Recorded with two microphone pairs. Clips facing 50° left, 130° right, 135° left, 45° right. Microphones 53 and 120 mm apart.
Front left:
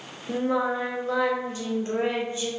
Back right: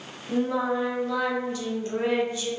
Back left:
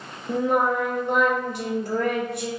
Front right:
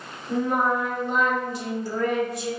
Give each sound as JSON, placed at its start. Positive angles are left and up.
{"t": 0.3, "sound": "singing", "azimuth_deg": 110, "distance_m": 0.5}